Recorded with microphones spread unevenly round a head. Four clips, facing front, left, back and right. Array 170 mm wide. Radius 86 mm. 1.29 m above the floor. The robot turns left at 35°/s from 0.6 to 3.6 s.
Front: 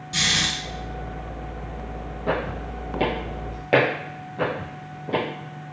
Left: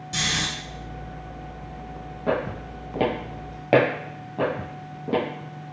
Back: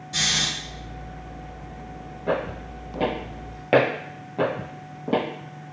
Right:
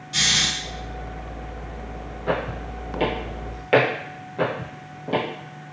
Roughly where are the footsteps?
Left.